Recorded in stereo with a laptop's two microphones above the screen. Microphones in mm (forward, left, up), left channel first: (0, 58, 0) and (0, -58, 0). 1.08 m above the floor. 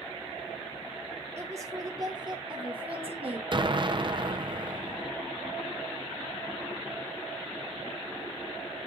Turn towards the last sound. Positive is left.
turn(degrees=-45)  # may be behind; listen again after turning